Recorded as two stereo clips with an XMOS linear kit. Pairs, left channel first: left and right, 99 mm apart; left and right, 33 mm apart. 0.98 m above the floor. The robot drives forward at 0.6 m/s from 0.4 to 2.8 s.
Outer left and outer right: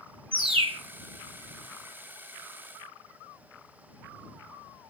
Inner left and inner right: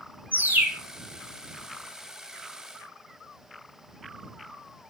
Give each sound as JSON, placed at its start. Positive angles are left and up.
{"t": 0.3, "sound": "a bird", "side_deg": -75, "distance_m": 2.5}